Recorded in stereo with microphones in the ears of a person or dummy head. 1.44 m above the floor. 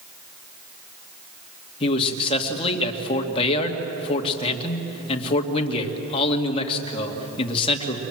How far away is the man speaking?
About 2.5 m.